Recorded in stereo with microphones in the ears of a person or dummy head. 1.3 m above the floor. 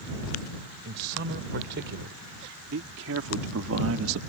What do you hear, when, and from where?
0.8 s a man speaking: 60° right (ahead or behind); by 4.2 s 85° right